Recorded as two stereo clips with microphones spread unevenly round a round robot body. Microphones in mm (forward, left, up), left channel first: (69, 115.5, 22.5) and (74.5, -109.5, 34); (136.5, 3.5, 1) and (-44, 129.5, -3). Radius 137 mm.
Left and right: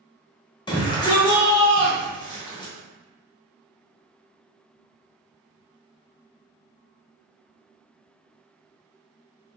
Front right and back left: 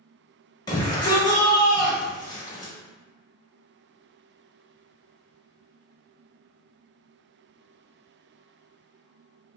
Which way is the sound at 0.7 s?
30° left.